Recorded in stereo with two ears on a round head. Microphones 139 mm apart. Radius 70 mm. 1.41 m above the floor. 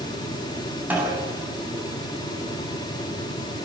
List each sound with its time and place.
0.9 s a snare drum: 10° right (ahead or behind), 7 m